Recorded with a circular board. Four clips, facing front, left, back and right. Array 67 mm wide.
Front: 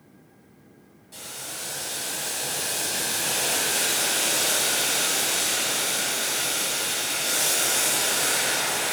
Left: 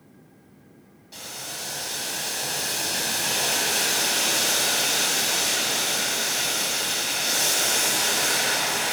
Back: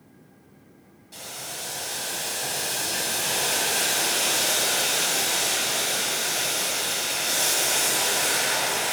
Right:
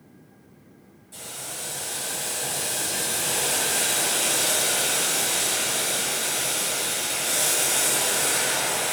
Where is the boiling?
110° left, 1.6 m.